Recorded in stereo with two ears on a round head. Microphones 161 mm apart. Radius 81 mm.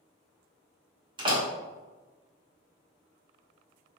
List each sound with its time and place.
1.2 s a door slam: 30° right (ahead or behind), 1.2 m